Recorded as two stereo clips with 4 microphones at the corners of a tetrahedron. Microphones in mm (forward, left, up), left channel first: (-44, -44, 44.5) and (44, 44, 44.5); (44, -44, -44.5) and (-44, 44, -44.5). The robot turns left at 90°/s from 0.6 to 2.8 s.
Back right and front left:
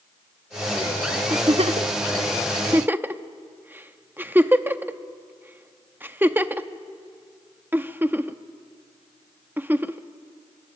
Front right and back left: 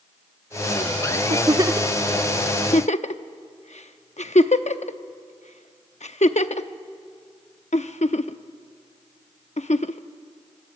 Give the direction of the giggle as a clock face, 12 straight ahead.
8 o'clock.